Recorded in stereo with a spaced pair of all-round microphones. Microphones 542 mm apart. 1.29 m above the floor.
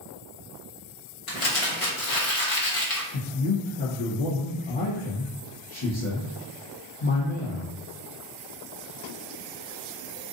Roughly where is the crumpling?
Left.